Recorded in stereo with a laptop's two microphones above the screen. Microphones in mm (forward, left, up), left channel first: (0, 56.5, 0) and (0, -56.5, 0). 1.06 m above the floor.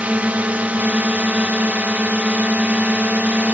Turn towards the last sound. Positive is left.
turn(degrees=-15)  # may be behind; listen again after turning